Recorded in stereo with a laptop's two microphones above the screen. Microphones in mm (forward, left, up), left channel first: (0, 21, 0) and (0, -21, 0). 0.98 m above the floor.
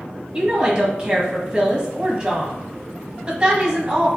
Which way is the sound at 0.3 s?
20° right (ahead or behind).